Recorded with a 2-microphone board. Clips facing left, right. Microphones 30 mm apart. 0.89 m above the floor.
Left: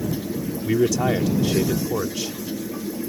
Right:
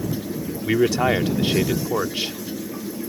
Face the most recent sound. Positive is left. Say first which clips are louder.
# right 2 dB
turn(degrees=-40)  # may be behind; listen again after turning